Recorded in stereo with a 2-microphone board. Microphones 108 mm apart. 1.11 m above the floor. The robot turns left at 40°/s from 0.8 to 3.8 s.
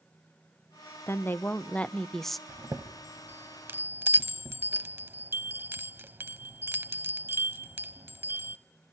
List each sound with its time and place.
1.1 s a woman speaking: 25° left (ahead or behind), 0.7 m; by 2.4 s centre (ahead or behind), 0.7 m
2.5 s a chime: 25° right (ahead or behind), 1.0 m; by 8.6 s 20° right (ahead or behind), 1.0 m